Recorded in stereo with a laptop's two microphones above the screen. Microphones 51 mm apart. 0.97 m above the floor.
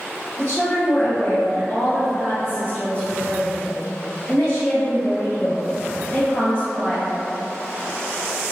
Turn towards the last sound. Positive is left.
turn(degrees=45)  # may be behind; listen again after turning